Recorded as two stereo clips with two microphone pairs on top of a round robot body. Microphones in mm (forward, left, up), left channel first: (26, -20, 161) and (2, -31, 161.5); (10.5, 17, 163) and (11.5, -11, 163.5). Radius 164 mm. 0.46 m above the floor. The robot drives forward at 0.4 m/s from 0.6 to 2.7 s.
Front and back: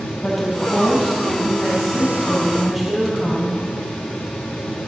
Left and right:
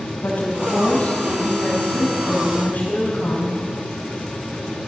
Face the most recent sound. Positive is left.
turn(degrees=125)